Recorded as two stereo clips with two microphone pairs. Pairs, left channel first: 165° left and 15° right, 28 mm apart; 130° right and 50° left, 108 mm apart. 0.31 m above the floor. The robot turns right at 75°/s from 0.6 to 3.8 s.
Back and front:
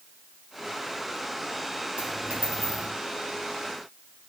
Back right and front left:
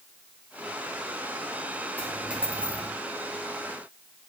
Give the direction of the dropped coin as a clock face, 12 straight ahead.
2 o'clock.